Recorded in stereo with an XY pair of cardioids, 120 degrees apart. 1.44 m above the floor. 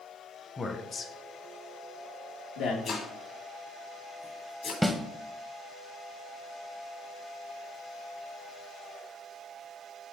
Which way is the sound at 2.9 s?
45° left.